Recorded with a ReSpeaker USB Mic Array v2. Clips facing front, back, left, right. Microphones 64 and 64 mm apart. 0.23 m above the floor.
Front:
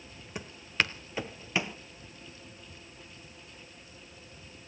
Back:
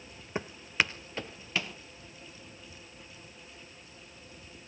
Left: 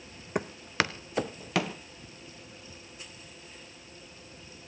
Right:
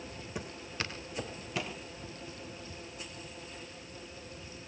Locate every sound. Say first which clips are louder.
0.3 s footsteps: back 1 dB, left 11 dB; 120° left, 0.9 m; by 1.8 s 70° left, 1.9 m